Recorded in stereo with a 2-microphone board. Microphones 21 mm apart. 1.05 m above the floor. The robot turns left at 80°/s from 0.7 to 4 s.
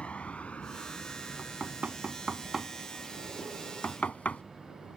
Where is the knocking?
60° right (ahead or behind); by 4.4 s 90° left.